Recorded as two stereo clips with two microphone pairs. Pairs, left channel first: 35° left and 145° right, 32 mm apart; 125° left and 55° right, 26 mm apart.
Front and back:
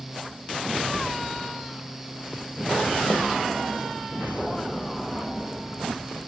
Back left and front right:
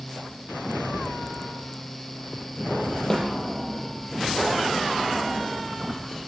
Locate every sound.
3.1 s a snare drum: 55° left, 8.5 m